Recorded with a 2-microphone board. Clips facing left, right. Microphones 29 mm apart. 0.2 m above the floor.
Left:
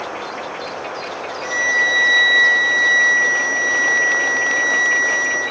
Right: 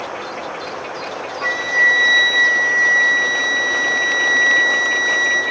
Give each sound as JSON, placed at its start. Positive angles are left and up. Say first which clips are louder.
{"t": 1.4, "sound": "a flute", "louder": "right 2 dB", "side_deg": -45, "distance_m": 1.2}